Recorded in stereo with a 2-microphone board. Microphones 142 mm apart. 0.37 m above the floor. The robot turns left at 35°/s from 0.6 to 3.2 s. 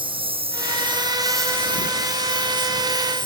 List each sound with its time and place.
0.0 s a lawn mower: 35° right (ahead or behind); by 3.3 s 30° left (ahead or behind)